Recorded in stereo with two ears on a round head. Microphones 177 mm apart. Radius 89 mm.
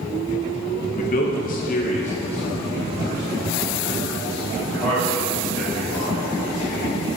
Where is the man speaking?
40° left (ahead or behind), 0.9 m; by 6.9 s centre (ahead or behind), 3.5 m.